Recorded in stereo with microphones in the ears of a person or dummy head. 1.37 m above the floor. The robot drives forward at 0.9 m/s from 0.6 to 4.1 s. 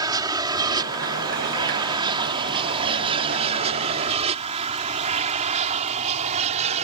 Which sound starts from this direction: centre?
An aircraft, at 0.0 s.